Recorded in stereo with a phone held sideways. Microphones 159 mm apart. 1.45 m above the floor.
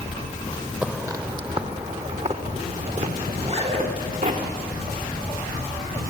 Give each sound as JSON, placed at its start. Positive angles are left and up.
{"t": 0.8, "sound": "footsteps", "side_deg": -10, "distance_m": 2.0}
{"t": 3.3, "sound": "a zipper", "side_deg": -45, "distance_m": 9.5}